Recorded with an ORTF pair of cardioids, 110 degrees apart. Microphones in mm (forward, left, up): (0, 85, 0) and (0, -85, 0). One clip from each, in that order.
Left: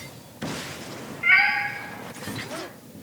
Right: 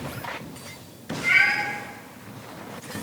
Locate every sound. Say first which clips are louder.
1.2 s a cat meowing: left 1 dB; 45° left, 1.9 m